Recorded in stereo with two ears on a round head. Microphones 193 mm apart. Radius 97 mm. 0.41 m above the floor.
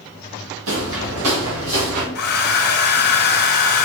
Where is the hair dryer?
50° left (ahead or behind), 1.2 m.